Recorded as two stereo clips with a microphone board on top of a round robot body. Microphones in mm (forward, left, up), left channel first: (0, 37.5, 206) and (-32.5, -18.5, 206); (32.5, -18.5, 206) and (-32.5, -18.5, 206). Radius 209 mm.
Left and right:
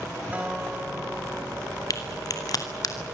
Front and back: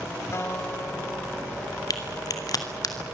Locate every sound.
0.3 s a guitar: 50° right, 2.5 m
1.9 s a crack: 30° left, 2.5 m